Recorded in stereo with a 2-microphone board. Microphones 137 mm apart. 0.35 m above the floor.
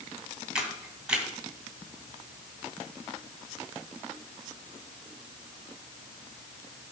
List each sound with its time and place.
0.6 s a camera shutter: 5° right (ahead or behind), 2.5 m